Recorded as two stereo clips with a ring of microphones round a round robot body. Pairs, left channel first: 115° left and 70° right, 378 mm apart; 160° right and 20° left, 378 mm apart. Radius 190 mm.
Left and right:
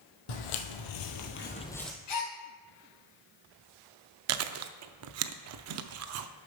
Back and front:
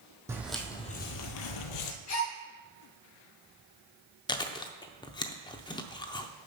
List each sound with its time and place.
0.3 s footsteps: 105° left, 1.3 m; by 1.9 s 155° right, 1.1 m
2.1 s a gasp: 150° left, 3 m
4.3 s chewing: 85° right, 0.5 m